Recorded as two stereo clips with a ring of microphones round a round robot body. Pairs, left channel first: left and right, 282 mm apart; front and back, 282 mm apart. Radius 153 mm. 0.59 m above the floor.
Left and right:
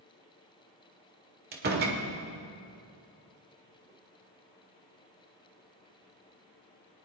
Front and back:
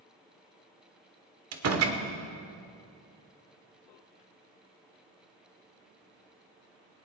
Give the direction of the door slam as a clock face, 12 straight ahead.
5 o'clock.